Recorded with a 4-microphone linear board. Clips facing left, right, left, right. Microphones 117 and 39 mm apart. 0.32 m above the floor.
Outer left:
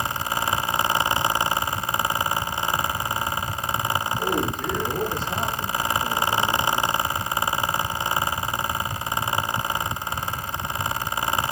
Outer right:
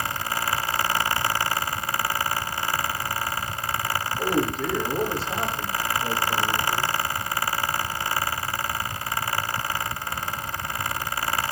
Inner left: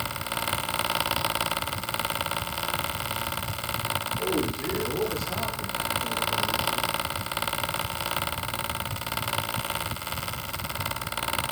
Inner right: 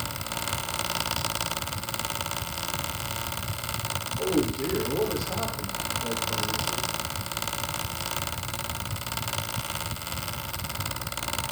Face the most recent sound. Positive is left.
turn(degrees=-5)  # may be behind; listen again after turning